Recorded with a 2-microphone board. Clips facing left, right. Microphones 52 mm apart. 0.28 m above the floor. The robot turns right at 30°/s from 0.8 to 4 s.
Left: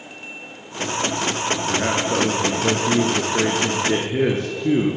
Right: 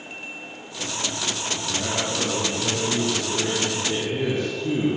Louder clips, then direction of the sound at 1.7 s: Left 5 dB; 60° left.